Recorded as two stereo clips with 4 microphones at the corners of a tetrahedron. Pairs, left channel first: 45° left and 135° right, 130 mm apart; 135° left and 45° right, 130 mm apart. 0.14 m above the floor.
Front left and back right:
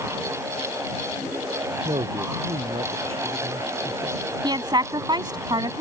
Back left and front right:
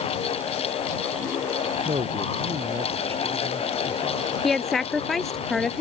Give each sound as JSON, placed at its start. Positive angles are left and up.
{"t": 1.9, "sound": "a man speaking", "azimuth_deg": -90}
{"t": 4.4, "sound": "a woman speaking", "azimuth_deg": -140}